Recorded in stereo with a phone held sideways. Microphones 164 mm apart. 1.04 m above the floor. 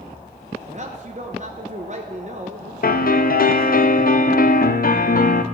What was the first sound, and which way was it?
A man speaking, 45° right (ahead or behind).